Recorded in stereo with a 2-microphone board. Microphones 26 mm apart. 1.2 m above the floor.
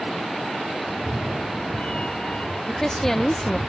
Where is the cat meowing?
45° left (ahead or behind); by 3.7 s 50° left (ahead or behind).